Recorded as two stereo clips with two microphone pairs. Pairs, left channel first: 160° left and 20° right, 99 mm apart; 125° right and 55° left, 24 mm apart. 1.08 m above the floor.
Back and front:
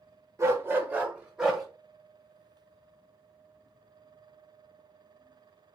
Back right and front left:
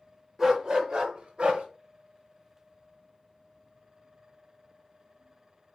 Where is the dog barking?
10° left, 0.9 m; by 1.6 s 65° left, 1.3 m.